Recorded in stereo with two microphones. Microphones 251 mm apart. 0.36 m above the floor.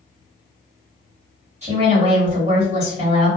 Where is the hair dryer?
No hair dryer in this recording.